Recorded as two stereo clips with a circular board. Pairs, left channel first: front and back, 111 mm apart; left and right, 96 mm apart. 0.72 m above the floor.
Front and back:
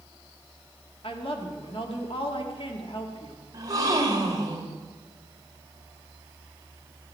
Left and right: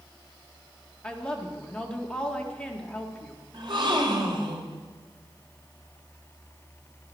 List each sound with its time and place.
1.0 s a woman speaking: 10° left, 1.7 m
3.5 s a gasp: 125° right, 1.8 m